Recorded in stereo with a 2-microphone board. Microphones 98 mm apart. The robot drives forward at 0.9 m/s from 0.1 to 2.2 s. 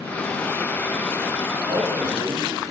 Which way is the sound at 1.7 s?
60° right (ahead or behind).